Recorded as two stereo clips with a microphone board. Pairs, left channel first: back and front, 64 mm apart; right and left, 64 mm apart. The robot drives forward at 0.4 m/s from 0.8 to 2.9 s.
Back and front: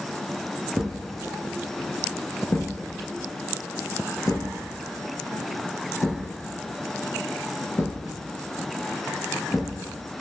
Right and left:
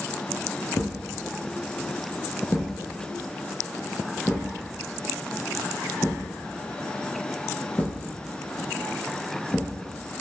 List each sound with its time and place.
0.8 s a thud: 80° right, 0.6 m; by 9.8 s 150° right, 1.0 m